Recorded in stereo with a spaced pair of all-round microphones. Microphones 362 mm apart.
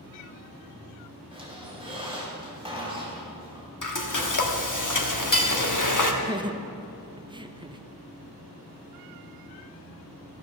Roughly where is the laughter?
Centre.